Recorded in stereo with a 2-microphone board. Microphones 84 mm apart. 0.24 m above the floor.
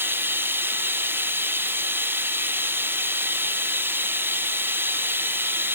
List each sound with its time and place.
0.0 s running water: 25° right (ahead or behind)